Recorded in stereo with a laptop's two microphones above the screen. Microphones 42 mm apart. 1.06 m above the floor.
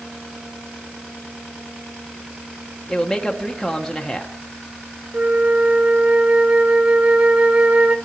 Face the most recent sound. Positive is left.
turn(degrees=-25)  # may be behind; listen again after turning